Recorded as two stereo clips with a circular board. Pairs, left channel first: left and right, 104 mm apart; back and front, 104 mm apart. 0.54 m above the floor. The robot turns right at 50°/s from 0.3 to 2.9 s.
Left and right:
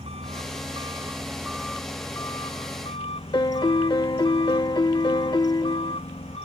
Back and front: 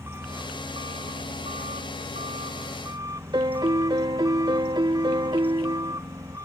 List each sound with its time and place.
0.0 s an engine running: 65° right; by 6.5 s 65° left
3.3 s a piano: 45° left